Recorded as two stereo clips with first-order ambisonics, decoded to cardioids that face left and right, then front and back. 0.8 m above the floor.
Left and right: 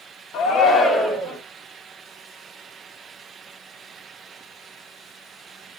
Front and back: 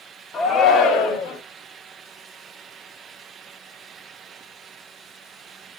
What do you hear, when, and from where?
0.3 s a shout: 60° left, 0.7 m; by 1.4 s 20° right, 0.8 m